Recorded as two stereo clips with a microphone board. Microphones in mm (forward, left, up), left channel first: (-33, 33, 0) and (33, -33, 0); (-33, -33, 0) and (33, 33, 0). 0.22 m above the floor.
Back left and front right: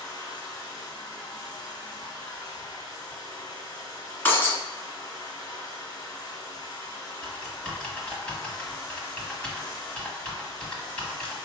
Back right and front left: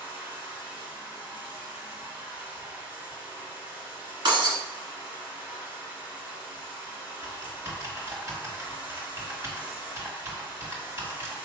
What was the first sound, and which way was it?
Running water, 115° left.